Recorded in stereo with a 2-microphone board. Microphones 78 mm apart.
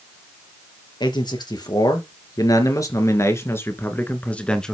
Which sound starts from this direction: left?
A man speaking, at 1.0 s.